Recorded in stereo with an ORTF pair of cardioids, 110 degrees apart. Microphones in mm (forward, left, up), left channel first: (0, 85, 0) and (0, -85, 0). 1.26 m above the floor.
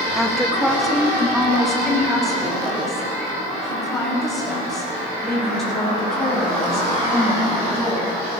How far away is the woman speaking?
About 1.7 m.